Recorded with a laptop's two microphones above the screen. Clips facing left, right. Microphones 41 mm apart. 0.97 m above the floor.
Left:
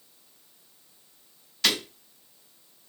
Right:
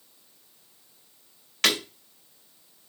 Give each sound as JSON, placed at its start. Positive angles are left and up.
{"t": 1.6, "sound": "breaking glass", "side_deg": -65, "distance_m": 2.5}